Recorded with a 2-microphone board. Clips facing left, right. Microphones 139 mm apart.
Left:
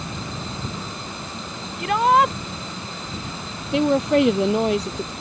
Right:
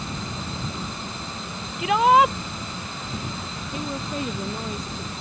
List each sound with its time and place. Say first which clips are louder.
1.8 s a shout: even; 5° right (ahead or behind)
3.7 s a woman speaking: left 14 dB; 80° left